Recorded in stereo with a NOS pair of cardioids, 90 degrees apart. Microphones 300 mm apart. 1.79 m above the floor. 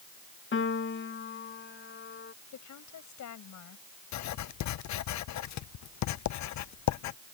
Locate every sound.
0.5 s a piano: 40° left
2.5 s a woman speaking: 65° left
4.1 s writing: 60° left